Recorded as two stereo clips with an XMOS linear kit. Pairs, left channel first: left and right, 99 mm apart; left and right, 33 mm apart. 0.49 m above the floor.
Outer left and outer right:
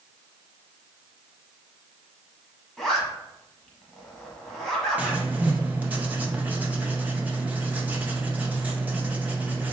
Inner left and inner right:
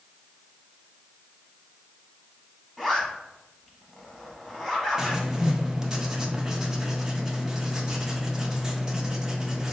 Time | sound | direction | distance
2.8 | a zipper | centre (ahead or behind) | 1.0 m
5.0 | writing | 15° right (ahead or behind) | 0.6 m